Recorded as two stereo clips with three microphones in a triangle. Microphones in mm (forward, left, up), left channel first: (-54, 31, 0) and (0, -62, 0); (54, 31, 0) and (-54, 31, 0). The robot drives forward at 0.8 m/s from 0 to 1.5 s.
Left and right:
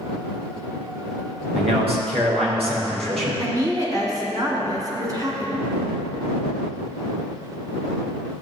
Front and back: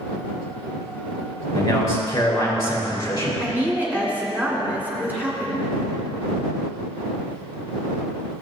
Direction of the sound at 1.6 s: 55° right.